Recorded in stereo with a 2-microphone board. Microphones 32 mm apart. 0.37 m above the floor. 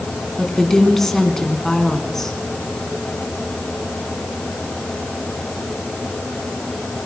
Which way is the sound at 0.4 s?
10° left (ahead or behind).